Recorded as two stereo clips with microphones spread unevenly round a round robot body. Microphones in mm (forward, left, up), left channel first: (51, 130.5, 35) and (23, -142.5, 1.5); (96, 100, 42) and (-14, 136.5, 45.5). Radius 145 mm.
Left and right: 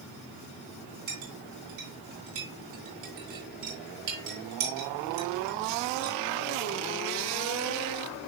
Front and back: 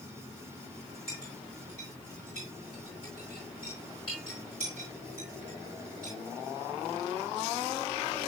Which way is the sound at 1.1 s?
80° right.